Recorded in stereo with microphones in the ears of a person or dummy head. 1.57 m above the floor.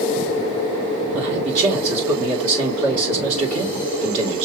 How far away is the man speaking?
About 1.8 m.